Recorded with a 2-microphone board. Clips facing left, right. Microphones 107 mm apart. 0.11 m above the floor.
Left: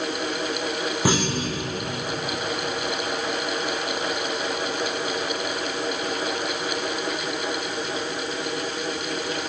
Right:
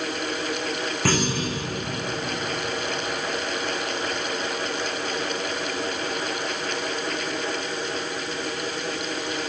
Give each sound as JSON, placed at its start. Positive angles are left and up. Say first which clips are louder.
{"t": 1.1, "sound": "a clunk", "louder": "even", "side_deg": 15, "distance_m": 4.5}